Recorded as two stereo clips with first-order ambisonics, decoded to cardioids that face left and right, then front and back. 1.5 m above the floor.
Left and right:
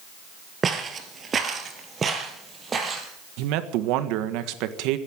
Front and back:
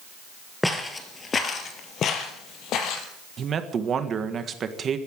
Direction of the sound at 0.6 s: 80° right.